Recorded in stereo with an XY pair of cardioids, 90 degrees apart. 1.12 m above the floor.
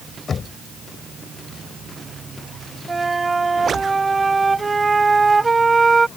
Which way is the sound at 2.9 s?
25° right.